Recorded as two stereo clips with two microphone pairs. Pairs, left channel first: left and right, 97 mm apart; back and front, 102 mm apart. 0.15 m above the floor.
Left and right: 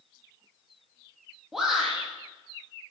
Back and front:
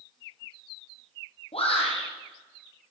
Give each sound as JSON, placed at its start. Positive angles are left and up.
{"t": 1.5, "sound": "a shout", "azimuth_deg": 180, "distance_m": 4.0}